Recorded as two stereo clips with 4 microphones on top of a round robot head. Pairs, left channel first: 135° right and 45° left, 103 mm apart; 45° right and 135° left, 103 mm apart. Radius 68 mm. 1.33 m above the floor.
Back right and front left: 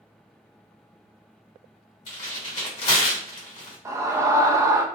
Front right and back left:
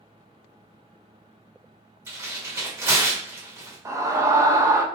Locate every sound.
2.1 s tearing paper: 160° right, 1.1 m
3.9 s a scream: 90° left, 0.5 m